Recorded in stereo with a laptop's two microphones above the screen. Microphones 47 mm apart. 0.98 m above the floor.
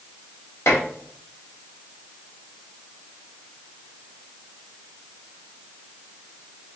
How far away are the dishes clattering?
About 1.4 m.